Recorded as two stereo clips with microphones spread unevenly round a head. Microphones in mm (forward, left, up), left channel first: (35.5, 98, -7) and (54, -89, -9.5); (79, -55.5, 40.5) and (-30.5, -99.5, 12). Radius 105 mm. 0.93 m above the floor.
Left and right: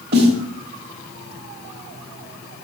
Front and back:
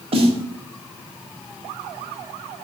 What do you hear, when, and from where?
0.1 s a snare drum: 120° right, 1.3 m